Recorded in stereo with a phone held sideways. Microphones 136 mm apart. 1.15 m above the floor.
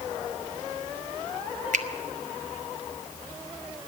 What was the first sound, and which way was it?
A finger snap, 65° right (ahead or behind).